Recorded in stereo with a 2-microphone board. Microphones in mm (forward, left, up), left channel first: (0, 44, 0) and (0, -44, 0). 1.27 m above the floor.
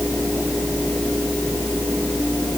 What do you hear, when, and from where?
Only background noise.